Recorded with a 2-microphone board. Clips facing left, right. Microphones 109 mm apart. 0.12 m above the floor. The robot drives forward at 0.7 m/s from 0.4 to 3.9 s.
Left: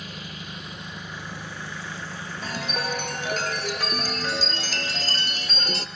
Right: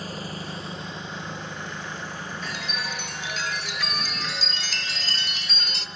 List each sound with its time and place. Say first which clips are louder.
0.0 s an engine running: right 5 dB; 40° right (ahead or behind), 1.1 m; by 6.0 s 10° right (ahead or behind), 3.5 m
2.4 s a chime: left 6 dB; 45° left (ahead or behind), 1.1 m